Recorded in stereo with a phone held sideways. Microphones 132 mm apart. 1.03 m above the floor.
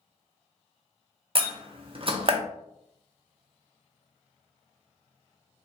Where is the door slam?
45° right (ahead or behind), 0.6 m.